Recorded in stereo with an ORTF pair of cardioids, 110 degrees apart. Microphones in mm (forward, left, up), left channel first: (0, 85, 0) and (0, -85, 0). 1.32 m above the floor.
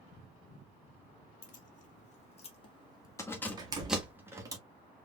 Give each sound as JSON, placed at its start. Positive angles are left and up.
{"t": 1.4, "sound": "keys jangling", "azimuth_deg": 50, "distance_m": 2.5}
{"t": 3.6, "sound": "a door slam", "azimuth_deg": -25, "distance_m": 1.6}